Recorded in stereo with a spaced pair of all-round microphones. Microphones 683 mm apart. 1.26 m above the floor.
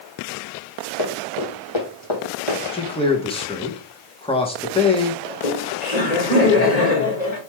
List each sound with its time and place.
1.0 s running footsteps: 35° left (ahead or behind), 3 m; by 2.6 s 50° left (ahead or behind), 4 m
2.7 s a man speaking: 10° left (ahead or behind), 1.8 m
5.3 s laughter: 70° left (ahead or behind), 2.5 m